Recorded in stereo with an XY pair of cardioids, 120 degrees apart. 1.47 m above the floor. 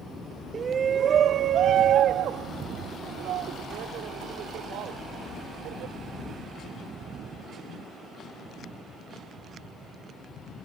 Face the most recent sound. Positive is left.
turn(degrees=-80)